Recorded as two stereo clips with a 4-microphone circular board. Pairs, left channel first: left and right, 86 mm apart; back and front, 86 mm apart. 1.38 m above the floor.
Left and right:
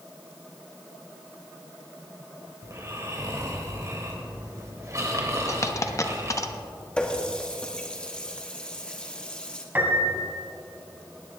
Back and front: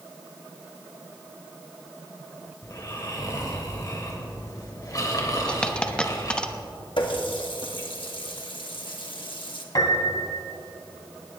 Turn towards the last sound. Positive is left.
turn(degrees=-150)